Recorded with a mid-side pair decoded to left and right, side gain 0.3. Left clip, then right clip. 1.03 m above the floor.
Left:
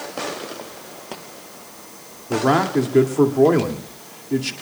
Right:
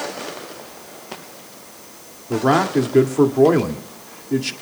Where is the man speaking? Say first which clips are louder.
Right 1 dB; 10° right, 2 m.